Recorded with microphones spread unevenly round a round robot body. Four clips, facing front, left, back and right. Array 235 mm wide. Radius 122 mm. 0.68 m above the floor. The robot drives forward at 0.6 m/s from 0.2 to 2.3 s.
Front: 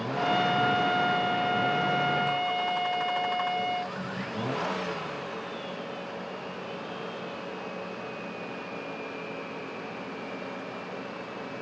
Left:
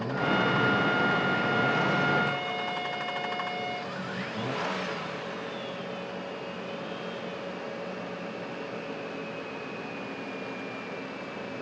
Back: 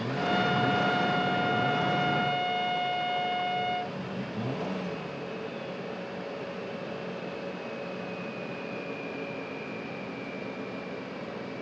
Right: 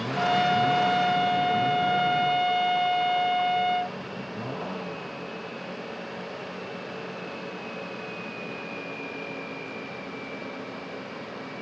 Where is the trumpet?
60° right; by 4.0 s 65° right.